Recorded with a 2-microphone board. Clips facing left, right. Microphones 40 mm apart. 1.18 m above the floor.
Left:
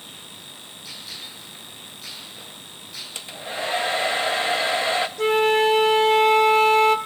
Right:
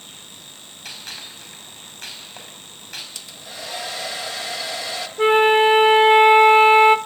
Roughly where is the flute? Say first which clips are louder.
Right 6 dB; right.